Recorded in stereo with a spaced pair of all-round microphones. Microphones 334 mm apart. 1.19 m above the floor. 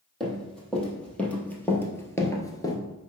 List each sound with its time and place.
0.2 s running footsteps: centre (ahead or behind), 2.5 m; by 2.8 s 10° left (ahead or behind), 1.1 m